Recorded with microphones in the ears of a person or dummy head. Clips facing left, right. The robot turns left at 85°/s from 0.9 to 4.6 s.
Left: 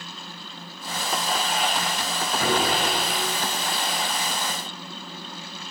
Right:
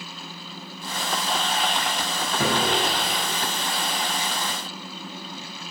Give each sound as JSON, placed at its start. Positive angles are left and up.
{"t": 2.4, "sound": "a piano", "azimuth_deg": -105, "distance_m": 7.0}